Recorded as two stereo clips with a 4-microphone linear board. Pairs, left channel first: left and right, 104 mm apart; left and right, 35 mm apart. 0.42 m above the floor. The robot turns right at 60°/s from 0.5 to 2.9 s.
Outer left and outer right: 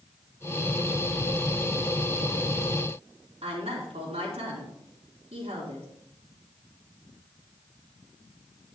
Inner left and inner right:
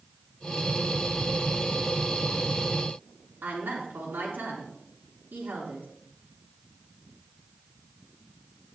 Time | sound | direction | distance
3.4 | a woman speaking | 70° right (ahead or behind) | 4 m